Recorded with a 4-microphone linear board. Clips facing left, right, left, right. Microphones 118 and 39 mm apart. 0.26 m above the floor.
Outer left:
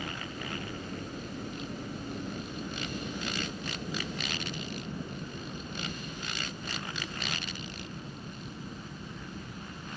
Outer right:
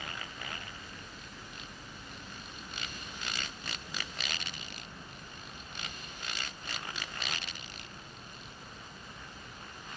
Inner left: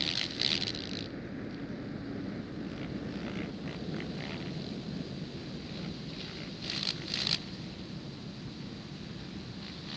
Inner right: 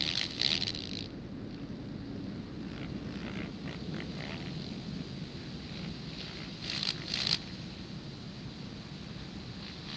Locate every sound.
0.0 s a helicopter: 50° left (ahead or behind); by 10.0 s 60° left (ahead or behind)